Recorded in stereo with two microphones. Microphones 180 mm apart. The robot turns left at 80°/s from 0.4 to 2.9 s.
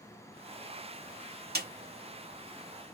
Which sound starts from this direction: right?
A snare drum, at 1.6 s.